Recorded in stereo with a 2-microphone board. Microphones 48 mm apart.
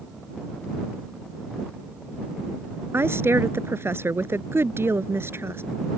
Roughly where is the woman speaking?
Right.